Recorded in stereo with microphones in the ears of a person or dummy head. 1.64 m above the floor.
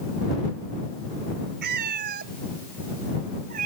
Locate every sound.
1.6 s a cat meowing: 65° right (ahead or behind); by 3.7 s 50° right (ahead or behind)